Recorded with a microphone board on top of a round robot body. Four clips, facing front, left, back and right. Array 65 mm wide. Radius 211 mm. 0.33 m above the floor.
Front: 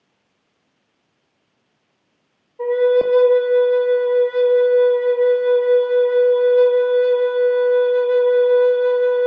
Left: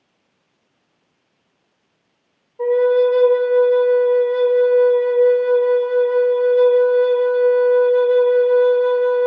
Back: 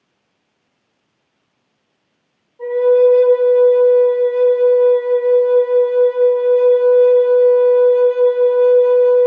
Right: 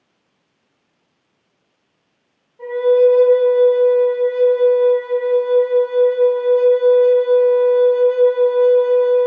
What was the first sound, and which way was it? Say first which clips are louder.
A flute: right 1 dB, back 4 dB; 25° left.